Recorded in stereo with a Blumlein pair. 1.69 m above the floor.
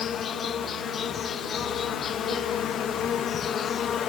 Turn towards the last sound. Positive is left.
turn(degrees=25)